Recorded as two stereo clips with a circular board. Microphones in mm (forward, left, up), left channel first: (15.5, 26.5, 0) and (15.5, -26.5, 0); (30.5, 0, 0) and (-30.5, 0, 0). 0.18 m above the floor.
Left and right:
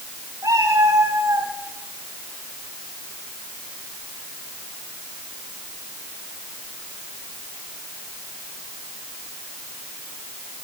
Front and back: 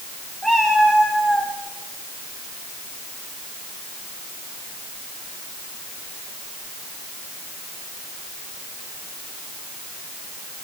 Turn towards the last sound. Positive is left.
turn(degrees=-80)